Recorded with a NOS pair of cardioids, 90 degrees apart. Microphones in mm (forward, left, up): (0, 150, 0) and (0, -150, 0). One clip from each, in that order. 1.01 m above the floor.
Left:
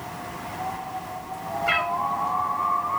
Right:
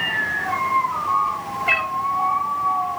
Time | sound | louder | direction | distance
1.7 | a cat meowing | right 3 dB | 10° right | 0.7 m